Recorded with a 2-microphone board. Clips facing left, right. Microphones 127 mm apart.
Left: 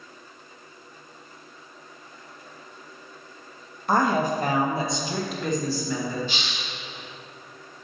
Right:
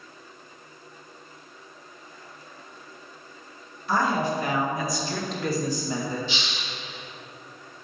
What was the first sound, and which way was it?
A woman speaking, 55° left (ahead or behind).